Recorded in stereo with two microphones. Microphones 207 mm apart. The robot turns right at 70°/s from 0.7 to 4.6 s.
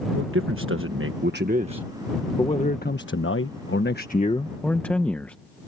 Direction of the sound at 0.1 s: 100° right.